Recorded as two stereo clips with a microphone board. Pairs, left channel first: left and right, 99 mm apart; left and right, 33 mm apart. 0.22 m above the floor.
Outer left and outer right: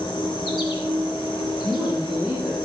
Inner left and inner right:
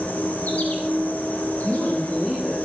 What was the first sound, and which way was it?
An insect, 45° left (ahead or behind).